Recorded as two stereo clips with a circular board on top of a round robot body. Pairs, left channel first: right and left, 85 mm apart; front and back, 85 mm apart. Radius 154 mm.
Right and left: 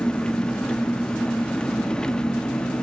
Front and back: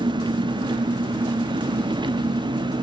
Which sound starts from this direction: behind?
An engine running, at 0.0 s.